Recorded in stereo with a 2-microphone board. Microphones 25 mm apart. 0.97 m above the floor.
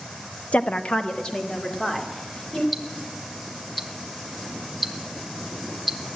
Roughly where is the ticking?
Centre.